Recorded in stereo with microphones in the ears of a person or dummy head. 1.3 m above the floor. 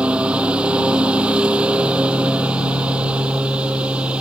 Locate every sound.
0.0 s a lawn mower: 5° right (ahead or behind)